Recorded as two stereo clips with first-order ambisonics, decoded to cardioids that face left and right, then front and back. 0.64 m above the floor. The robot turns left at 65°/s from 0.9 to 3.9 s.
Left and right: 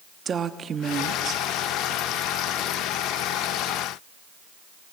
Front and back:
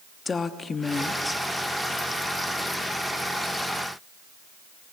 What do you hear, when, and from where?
0.2 s a woman speaking: 55° right, 0.9 m; by 1.4 s 90° right, 0.9 m